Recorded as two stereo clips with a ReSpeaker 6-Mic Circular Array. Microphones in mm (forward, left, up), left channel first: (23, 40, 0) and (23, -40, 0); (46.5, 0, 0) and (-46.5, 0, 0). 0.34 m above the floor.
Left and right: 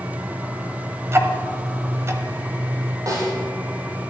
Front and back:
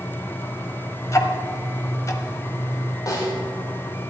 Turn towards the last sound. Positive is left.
turn(degrees=-50)